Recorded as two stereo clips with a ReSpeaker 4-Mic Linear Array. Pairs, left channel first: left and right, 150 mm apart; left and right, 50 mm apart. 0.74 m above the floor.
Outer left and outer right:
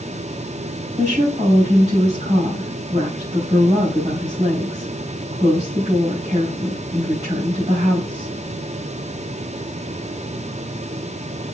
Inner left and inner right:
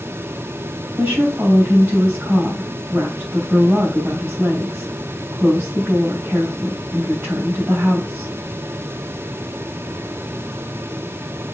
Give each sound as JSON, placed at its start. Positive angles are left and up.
{"t": 1.0, "sound": "a woman speaking", "side_deg": -40, "distance_m": 5.0}